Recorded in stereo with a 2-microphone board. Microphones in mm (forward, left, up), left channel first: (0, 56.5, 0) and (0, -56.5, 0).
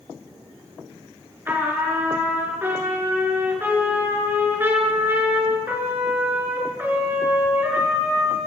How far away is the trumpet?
About 5 m.